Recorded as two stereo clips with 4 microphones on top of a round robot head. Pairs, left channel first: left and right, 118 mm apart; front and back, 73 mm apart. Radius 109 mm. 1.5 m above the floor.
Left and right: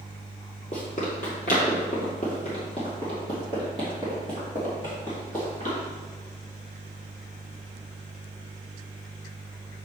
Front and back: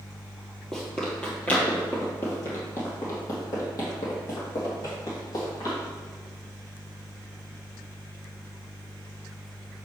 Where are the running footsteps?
80° left, 1.7 m; by 5.8 s 20° left, 3.5 m.